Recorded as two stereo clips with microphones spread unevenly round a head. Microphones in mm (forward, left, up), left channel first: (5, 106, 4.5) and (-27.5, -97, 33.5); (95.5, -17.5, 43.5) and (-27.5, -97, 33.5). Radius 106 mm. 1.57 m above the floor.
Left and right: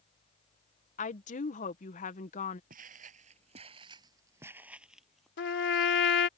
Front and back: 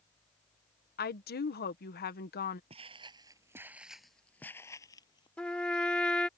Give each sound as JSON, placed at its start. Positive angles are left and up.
{"t": 1.0, "sound": "a woman speaking", "azimuth_deg": 25}
{"t": 2.7, "sound": "footsteps", "azimuth_deg": -110}
{"t": 5.4, "sound": "a trumpet", "azimuth_deg": 115}